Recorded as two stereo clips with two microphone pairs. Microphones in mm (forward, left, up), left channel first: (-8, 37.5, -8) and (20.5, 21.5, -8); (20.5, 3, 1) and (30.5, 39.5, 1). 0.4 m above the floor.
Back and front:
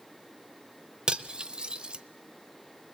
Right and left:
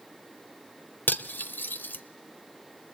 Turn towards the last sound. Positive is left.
turn(degrees=-85)